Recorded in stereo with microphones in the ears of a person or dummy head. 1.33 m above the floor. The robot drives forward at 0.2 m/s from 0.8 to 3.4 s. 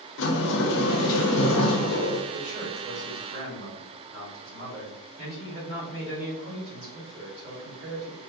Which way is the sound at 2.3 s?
60° right (ahead or behind).